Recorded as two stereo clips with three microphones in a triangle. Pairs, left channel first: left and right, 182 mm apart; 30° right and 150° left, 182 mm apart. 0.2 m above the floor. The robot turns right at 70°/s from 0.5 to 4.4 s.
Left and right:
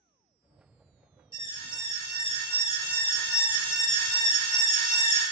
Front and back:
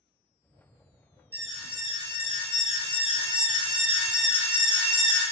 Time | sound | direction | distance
1.3 | an alarm | 45° left | 1.9 m